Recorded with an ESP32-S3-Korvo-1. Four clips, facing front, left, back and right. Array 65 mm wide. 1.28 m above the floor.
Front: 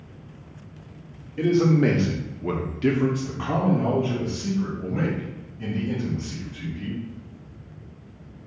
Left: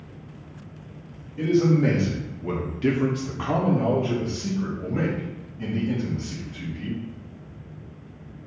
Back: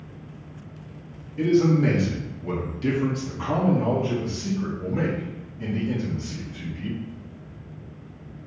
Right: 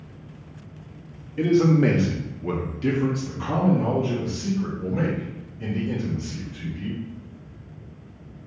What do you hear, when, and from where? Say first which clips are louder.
1.4 s a man speaking: right 2 dB, even; 60° right, 0.9 m; by 7.0 s 95° left, 2.5 m